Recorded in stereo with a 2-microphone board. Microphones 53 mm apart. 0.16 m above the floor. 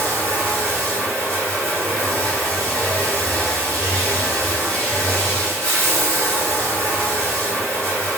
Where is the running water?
20° left (ahead or behind), 1.5 m.